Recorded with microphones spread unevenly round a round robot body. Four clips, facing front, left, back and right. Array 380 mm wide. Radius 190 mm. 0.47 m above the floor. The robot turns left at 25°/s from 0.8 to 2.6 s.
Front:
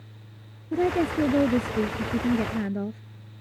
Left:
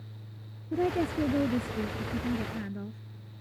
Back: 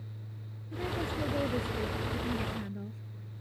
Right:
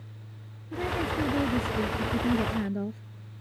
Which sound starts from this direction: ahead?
A woman speaking, at 0.7 s.